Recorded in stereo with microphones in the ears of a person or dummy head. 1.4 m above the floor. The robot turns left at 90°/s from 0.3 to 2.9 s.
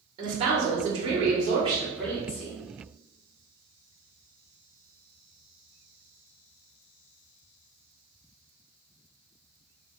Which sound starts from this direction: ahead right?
A woman speaking, at 0.2 s.